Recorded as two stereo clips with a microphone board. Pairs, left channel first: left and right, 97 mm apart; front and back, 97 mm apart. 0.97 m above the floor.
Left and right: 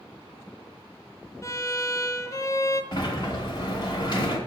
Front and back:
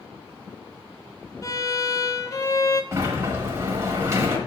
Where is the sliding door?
120° left, 1.3 m.